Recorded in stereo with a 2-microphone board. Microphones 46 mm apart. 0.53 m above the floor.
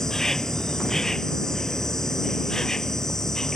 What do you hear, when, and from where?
0.0 s an insect: 10° left (ahead or behind)